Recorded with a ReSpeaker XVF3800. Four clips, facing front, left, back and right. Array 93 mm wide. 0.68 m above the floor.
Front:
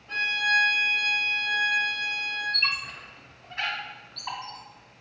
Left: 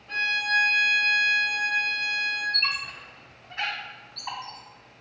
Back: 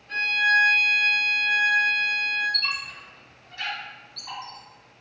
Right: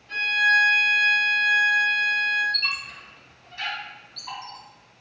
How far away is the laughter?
I don't hear laughter.